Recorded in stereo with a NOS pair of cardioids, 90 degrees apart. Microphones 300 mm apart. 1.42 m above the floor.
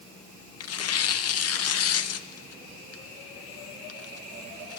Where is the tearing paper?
55° left, 0.9 m.